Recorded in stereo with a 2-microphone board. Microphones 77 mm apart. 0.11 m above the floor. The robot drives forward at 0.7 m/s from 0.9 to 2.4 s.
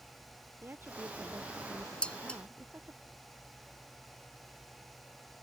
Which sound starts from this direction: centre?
Dishes clattering, at 2.0 s.